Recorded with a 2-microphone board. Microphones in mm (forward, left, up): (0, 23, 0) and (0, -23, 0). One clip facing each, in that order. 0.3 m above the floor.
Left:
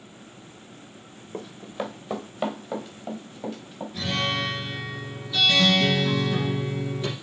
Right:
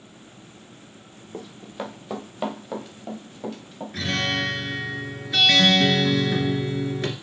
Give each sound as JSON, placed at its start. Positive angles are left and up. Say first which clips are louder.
{"t": 1.3, "sound": "running footsteps", "louder": "left 2 dB", "side_deg": 5, "distance_m": 1.4}
{"t": 3.9, "sound": "a guitar", "louder": "right 2 dB", "side_deg": -80, "distance_m": 2.0}